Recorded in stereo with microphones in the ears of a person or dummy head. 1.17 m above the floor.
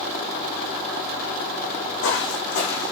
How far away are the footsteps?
About 5 m.